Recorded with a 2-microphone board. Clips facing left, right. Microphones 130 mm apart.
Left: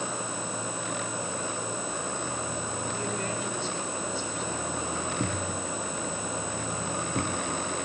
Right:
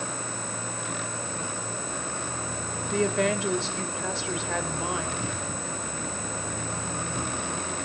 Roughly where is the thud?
Left.